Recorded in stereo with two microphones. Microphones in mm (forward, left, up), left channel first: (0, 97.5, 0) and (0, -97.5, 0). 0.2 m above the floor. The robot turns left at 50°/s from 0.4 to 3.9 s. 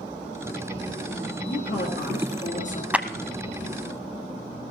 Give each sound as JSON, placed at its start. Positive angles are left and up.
{"t": 1.5, "sound": "a man speaking", "azimuth_deg": 105, "distance_m": 3.5}
{"t": 2.9, "sound": "a clap", "side_deg": -10, "distance_m": 0.8}